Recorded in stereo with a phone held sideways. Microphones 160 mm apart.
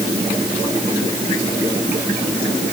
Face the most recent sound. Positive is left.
No sound to turn to.